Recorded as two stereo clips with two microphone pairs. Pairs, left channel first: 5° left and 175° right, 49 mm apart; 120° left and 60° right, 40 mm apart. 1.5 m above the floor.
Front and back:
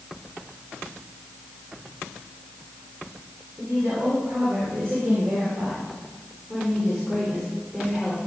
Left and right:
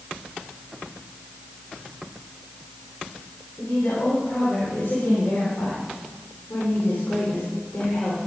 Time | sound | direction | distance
3.6 | a woman speaking | 150° left | 5.5 m